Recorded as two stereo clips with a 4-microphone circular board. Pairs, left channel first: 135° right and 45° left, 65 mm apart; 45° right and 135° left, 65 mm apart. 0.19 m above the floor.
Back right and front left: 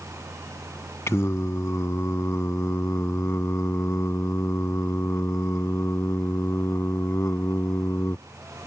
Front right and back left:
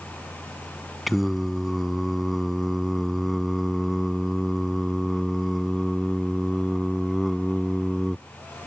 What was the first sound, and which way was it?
Singing, 135° right.